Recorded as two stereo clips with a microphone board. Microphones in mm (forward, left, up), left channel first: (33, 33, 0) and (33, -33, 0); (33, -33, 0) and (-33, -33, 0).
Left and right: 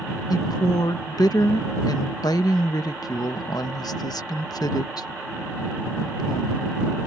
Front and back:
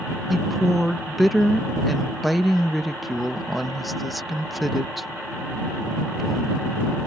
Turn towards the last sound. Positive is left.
turn(degrees=90)